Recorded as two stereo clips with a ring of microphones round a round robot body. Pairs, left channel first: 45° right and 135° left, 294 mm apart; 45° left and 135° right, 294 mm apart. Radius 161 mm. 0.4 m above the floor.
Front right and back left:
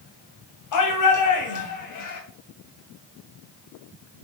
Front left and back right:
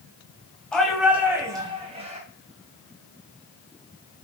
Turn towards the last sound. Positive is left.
turn(degrees=-70)